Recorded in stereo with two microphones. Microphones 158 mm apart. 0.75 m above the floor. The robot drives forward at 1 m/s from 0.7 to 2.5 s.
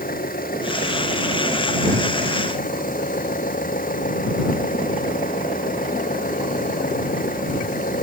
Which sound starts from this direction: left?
An engine running, at 0.0 s.